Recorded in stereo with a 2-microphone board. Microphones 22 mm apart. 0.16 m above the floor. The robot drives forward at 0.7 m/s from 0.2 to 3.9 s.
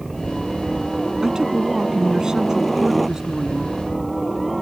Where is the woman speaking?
30° right (ahead or behind); by 3.8 s 25° right (ahead or behind).